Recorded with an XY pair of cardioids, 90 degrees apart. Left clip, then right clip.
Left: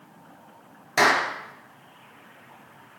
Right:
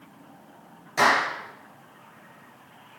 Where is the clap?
70° left, 2 m.